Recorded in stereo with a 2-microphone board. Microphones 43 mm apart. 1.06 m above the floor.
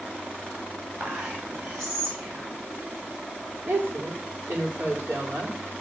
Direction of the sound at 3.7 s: 50° right (ahead or behind).